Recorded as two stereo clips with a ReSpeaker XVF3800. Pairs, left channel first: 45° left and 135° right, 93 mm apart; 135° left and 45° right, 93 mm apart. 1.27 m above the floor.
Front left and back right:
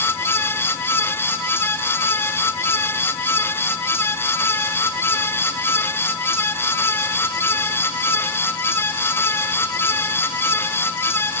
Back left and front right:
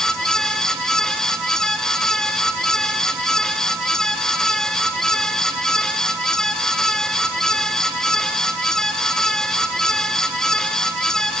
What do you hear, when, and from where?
Only background noise.